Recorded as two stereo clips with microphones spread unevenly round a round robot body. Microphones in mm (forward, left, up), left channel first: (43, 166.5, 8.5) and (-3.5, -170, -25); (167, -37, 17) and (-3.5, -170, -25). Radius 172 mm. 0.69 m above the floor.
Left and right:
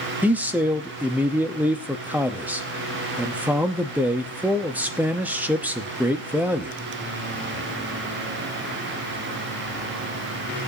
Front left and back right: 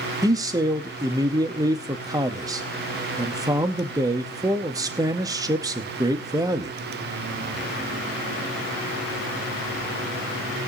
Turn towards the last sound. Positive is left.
turn(degrees=-170)